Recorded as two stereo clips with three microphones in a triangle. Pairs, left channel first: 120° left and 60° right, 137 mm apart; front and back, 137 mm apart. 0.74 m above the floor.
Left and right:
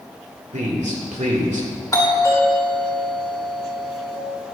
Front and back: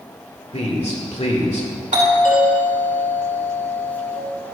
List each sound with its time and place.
0.5 s a man speaking: 35° right, 2.5 m
1.9 s a doorbell: straight behind, 2.5 m